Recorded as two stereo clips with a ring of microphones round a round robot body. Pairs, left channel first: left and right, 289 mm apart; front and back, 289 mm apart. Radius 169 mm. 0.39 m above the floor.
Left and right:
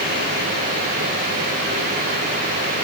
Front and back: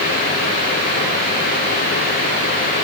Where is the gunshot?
No gunshot in this recording.